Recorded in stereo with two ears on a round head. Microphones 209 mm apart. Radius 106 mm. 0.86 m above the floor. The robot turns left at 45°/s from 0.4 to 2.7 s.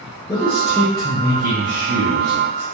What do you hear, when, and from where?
0.3 s a man speaking: 10° left, 0.7 m; by 2.6 s 95° right, 0.7 m